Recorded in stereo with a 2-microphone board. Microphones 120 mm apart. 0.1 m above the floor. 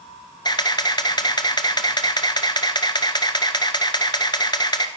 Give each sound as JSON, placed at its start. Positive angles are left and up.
{"t": 0.5, "sound": "a camera shutter", "side_deg": 35, "distance_m": 1.0}